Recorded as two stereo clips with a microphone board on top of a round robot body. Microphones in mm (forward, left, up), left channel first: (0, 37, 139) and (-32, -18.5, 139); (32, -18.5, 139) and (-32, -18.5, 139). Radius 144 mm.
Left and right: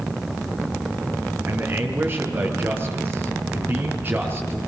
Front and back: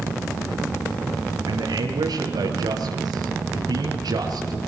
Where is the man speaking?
175° left, 4.5 m.